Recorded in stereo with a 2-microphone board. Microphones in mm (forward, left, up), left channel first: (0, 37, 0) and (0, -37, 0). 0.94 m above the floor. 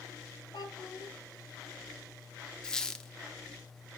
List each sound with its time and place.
0.5 s a child speaking: 90° left, 3 m
2.6 s a squeak: 10° left (ahead or behind), 0.7 m